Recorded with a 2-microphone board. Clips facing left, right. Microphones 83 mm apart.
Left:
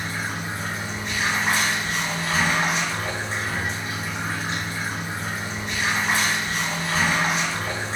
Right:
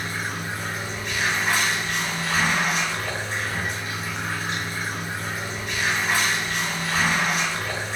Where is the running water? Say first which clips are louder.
Even; 30° left (ahead or behind), 1.3 m.